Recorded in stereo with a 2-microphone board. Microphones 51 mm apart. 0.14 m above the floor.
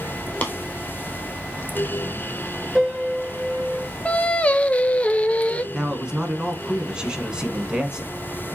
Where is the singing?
30° left (ahead or behind), 0.5 m.